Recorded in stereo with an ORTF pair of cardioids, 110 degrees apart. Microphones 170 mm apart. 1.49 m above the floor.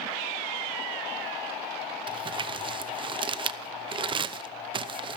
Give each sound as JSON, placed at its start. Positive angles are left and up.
{"t": 2.1, "sound": "crumpling", "azimuth_deg": -30, "distance_m": 0.8}